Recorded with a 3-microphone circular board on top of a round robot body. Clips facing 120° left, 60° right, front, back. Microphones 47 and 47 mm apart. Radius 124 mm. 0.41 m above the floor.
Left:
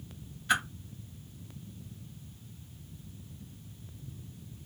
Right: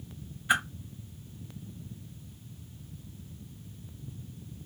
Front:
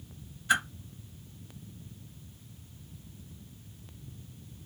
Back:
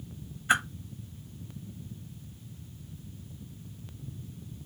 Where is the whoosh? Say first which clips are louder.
Right 2 dB, back 1 dB; 135° right, 1.1 m.